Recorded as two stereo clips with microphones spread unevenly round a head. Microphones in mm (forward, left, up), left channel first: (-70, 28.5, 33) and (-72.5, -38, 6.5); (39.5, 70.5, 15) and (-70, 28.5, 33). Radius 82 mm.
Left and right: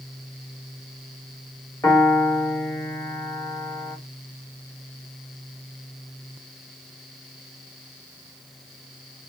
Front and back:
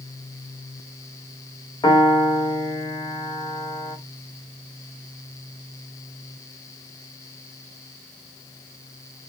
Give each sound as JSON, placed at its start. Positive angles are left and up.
{"t": 1.8, "sound": "a piano", "azimuth_deg": 75, "distance_m": 1.2}